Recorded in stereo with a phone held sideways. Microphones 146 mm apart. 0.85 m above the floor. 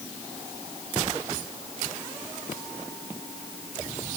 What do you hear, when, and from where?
Only background noise.